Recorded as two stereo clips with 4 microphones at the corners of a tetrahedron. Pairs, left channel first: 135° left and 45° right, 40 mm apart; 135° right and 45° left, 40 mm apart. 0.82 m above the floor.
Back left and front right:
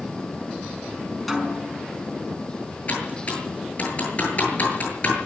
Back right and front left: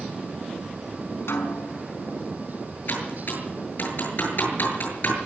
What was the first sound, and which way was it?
A snare drum, 135° right.